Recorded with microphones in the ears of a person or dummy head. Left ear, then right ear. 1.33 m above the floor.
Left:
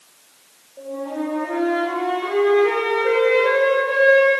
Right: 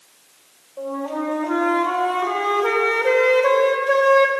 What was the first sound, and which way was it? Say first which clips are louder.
A flute: right 2 dB; 45° right (ahead or behind).